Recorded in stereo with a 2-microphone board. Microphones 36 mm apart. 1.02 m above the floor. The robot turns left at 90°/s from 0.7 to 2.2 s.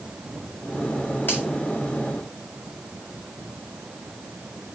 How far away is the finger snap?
About 4.5 m.